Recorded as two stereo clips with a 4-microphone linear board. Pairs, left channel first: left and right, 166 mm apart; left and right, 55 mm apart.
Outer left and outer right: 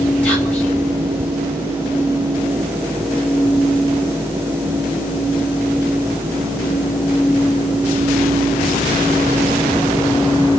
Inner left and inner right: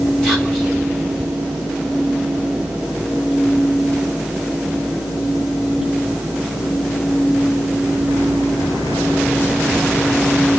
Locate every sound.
0.2 s whispering: 10° left (ahead or behind), 1.7 m